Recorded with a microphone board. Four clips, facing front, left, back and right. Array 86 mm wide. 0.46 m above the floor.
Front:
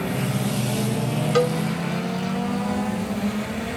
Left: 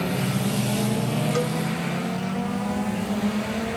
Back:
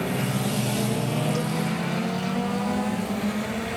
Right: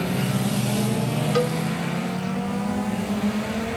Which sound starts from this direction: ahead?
A cowbell, at 1.4 s.